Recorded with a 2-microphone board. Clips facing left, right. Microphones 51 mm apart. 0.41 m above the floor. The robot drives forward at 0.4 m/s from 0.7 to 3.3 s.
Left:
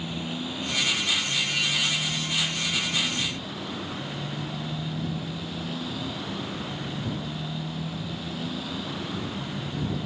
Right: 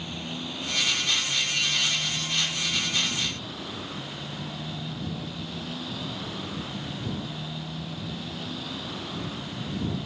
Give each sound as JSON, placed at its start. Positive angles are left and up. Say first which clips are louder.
{"t": 0.0, "sound": "a motorcycle", "louder": "left 3 dB", "side_deg": 0}